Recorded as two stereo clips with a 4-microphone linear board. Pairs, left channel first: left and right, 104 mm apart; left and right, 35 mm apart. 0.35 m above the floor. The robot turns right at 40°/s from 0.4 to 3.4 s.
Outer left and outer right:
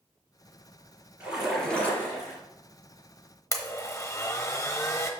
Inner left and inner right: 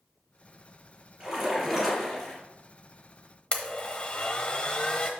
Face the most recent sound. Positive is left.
turn(degrees=30)  # may be behind; listen again after turning